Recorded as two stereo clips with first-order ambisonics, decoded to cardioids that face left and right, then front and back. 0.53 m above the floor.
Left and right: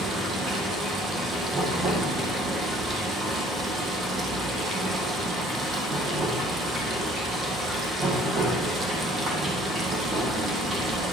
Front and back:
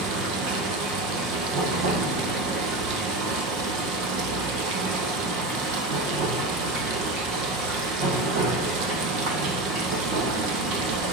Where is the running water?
160° right, 1.8 m.